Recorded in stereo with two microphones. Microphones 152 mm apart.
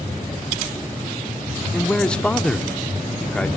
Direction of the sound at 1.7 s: 5° left (ahead or behind).